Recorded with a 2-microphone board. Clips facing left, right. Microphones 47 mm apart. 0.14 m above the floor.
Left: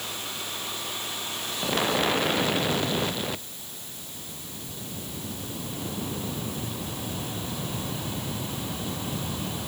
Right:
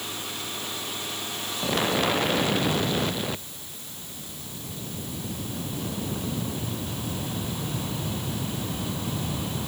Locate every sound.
Only background noise.